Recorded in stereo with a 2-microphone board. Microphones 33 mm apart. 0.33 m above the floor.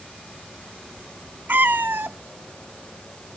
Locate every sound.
1.5 s a cat meowing: 75° right (ahead or behind)